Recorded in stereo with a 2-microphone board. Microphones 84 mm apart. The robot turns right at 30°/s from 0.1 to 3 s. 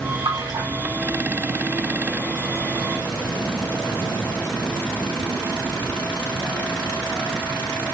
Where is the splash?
60° right (ahead or behind), 1.7 m; by 0.7 s 50° right (ahead or behind), 1.7 m.